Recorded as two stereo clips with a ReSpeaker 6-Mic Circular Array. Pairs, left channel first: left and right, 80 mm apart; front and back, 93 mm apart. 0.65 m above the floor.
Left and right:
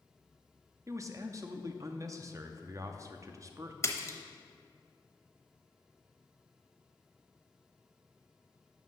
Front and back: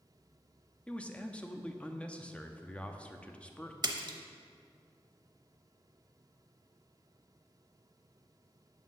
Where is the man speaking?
70° right, 0.6 m.